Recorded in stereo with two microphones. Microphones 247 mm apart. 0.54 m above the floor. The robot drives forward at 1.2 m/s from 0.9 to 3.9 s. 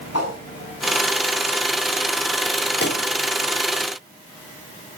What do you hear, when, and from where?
0.1 s a whoosh: 80° left, 5 m
2.8 s a pop: 45° left (ahead or behind), 1.6 m